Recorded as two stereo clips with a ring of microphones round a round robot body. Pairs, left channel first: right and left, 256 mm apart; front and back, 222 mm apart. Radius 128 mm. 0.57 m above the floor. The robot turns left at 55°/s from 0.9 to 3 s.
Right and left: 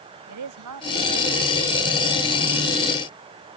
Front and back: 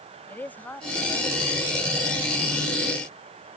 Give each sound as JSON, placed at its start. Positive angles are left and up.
{"t": 0.3, "sound": "a woman speaking", "azimuth_deg": 80}